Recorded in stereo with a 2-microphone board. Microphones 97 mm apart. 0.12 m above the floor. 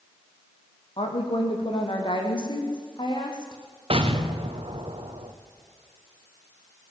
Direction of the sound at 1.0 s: 65° left (ahead or behind).